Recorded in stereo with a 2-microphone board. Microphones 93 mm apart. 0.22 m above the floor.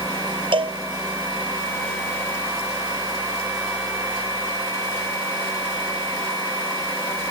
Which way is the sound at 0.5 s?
65° right (ahead or behind).